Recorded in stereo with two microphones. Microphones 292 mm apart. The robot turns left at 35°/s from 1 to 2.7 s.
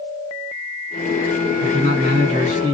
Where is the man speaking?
130° right, 1.8 m; by 2.8 s 165° right, 1.8 m.